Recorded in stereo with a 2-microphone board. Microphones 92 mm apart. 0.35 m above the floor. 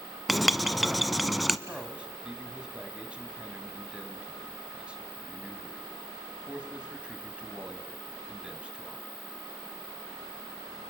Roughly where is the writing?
Centre.